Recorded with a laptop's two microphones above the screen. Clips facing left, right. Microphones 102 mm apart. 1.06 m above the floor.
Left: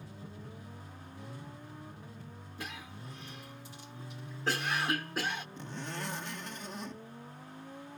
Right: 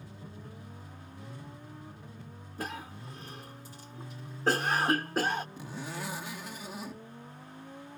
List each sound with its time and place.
2.6 s a cough: 40° right (ahead or behind)
5.6 s a zipper: 5° right (ahead or behind)